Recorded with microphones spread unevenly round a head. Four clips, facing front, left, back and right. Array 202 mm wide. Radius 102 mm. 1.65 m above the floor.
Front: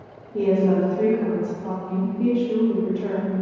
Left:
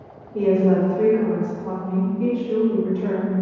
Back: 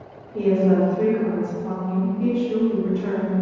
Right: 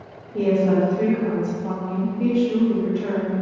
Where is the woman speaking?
5° left, 4.5 m.